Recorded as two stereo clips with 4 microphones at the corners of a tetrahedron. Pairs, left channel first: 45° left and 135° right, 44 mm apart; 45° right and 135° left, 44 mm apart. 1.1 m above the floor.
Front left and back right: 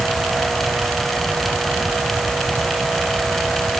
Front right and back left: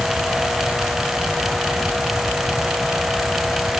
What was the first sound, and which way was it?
Only background noise.